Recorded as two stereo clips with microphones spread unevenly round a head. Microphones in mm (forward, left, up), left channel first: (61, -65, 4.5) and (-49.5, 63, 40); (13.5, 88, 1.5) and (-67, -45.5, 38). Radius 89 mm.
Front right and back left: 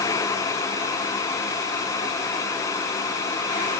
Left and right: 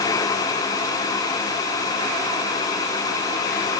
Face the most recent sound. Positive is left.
No sound to turn to.